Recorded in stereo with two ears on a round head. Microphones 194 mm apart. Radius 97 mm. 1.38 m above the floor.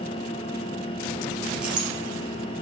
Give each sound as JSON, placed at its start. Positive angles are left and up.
{"t": 1.6, "sound": "a clink", "side_deg": -5, "distance_m": 2.5}